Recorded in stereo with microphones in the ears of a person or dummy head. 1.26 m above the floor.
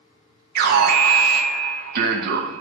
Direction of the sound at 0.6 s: 55° right (ahead or behind).